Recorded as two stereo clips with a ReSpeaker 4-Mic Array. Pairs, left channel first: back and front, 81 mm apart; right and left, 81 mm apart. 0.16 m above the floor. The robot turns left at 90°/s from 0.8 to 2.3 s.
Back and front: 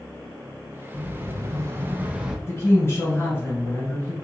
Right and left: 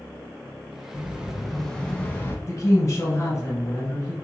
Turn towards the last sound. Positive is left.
turn(degrees=-135)